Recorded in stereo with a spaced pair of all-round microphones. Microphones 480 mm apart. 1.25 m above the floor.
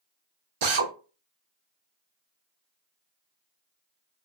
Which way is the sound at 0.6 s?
80° right.